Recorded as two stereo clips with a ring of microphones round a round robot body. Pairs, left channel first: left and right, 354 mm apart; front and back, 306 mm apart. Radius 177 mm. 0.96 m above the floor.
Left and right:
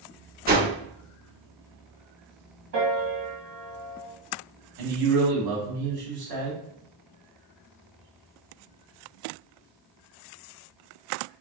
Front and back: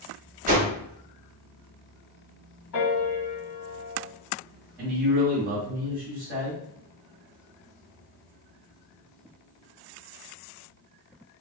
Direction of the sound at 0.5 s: 135° right.